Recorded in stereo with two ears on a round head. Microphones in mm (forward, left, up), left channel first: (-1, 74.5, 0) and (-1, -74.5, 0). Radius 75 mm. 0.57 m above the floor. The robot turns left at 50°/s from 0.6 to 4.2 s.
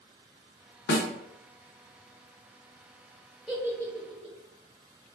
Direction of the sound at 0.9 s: 65° left (ahead or behind).